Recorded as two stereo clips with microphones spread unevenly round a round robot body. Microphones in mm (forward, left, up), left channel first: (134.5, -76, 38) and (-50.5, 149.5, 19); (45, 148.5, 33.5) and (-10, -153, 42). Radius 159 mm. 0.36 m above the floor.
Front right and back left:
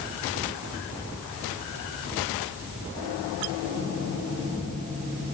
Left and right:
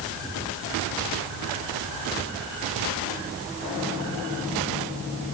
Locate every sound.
Only background noise.